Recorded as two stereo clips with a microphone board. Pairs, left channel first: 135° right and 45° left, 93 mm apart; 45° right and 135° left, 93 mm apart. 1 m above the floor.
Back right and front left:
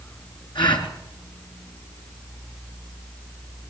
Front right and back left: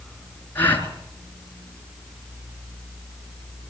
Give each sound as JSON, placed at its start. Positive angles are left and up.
{"t": 0.6, "sound": "a gasp", "azimuth_deg": -110, "distance_m": 4.0}